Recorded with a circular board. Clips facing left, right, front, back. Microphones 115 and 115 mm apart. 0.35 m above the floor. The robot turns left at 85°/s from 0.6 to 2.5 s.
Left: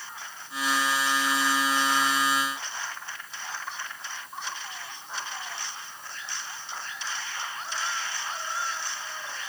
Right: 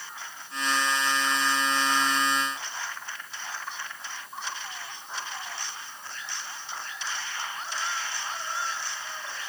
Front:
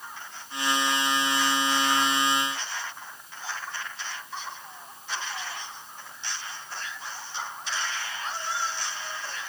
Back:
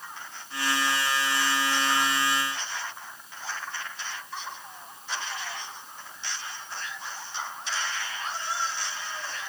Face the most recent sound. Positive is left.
No sound to turn to.